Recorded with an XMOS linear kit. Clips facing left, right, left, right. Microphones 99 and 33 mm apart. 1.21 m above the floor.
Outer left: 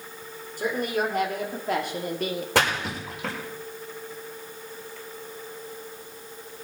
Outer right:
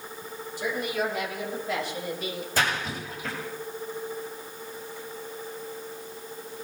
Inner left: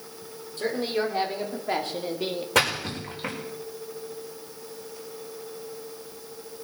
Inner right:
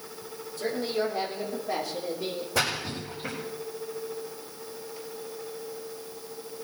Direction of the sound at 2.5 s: 85° left.